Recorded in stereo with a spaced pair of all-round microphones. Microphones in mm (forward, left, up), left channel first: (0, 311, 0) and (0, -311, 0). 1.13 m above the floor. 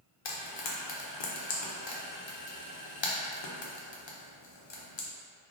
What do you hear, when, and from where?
0.2 s frying: 45° left (ahead or behind), 0.6 m